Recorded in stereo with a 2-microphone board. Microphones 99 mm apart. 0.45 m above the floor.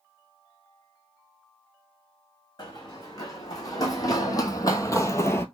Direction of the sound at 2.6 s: 40° left (ahead or behind).